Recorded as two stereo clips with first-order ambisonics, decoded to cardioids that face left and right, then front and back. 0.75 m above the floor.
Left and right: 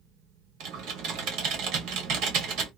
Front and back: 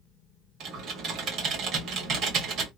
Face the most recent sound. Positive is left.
turn(degrees=-130)